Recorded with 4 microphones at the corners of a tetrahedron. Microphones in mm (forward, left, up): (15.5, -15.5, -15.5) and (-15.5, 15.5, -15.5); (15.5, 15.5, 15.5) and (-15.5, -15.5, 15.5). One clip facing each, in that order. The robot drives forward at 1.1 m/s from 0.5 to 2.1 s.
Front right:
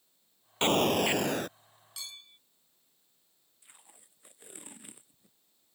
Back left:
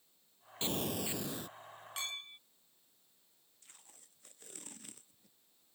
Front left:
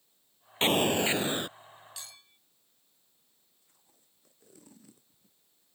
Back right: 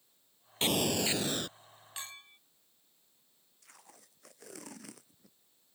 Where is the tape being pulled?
120° right.